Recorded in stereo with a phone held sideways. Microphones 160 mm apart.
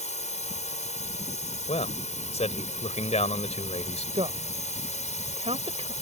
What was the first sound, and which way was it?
A drone, 45° left (ahead or behind).